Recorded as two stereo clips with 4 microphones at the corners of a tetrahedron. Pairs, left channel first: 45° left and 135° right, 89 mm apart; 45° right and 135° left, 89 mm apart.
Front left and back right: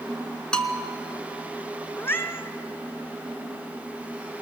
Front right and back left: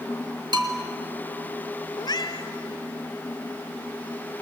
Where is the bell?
125° left, 1.9 m.